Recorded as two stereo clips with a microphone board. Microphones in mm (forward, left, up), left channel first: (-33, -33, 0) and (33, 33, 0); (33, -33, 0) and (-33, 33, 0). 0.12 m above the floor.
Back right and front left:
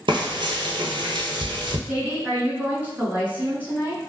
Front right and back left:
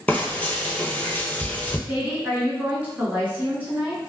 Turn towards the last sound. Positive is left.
turn(degrees=85)